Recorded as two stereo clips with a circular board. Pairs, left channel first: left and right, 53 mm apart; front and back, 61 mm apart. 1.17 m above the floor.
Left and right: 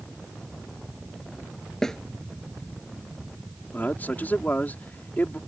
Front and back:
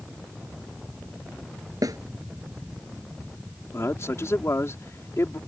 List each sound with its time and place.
1.8 s a snare drum: 170° left
3.7 s a man speaking: 40° left